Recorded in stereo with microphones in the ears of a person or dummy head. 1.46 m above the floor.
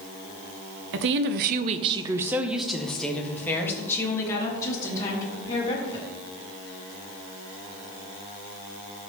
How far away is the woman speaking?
About 0.8 m.